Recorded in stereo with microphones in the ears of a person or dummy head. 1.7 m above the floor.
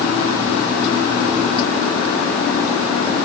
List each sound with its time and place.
Only background noise.